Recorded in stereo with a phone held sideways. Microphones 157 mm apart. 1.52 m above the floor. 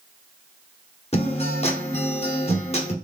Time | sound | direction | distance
1.1 | a guitar | 45° left (ahead or behind) | 1.1 m